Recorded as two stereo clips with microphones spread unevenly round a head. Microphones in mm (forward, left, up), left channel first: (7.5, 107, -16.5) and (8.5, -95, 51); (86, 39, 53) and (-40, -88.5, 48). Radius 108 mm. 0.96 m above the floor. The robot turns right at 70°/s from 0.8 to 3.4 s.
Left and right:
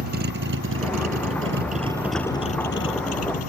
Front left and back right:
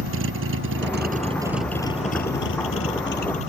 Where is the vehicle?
135° right; by 3.5 s 105° left.